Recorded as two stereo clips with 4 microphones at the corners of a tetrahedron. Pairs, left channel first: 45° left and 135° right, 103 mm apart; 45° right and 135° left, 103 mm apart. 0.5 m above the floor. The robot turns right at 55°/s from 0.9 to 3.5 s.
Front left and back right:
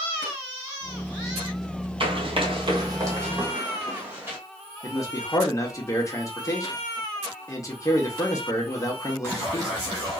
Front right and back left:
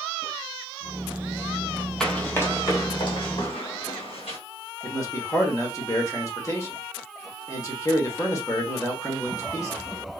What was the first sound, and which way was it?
Running footsteps, 130° right.